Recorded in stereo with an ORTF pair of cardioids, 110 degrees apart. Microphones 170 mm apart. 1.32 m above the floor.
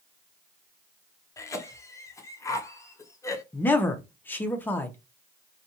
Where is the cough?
20° left, 0.8 m.